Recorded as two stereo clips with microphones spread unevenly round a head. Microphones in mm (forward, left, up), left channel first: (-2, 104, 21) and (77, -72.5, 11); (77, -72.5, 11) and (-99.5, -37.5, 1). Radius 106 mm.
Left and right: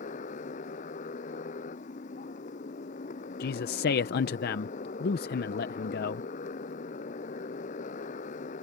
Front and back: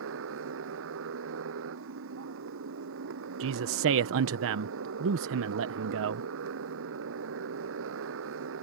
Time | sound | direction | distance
0.0 | a motorcycle | 175° left | ?
3.4 | a man speaking | 165° left | ?